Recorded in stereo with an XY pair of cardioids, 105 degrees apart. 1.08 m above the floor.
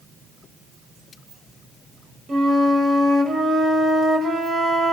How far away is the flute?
About 5 m.